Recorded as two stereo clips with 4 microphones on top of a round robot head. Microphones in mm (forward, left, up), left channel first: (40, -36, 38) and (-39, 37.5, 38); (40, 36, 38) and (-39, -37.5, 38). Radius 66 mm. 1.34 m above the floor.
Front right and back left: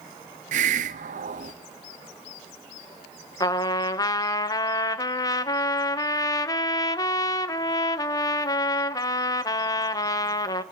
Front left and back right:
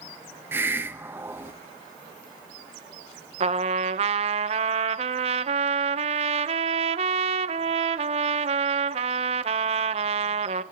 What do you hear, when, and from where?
0.5 s a hiss: 150° left, 1.2 m
3.4 s a trumpet: 105° right, 0.8 m